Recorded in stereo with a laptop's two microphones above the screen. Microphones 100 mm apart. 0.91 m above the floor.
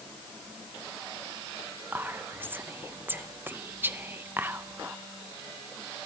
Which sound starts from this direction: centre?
Whispering, at 1.9 s.